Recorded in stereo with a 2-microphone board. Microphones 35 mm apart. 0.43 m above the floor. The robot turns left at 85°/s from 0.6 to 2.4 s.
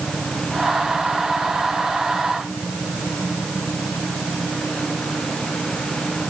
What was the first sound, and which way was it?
Only background noise.